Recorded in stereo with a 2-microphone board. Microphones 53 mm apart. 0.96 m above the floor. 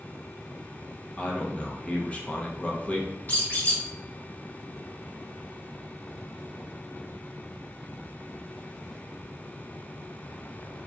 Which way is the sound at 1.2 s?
25° left (ahead or behind).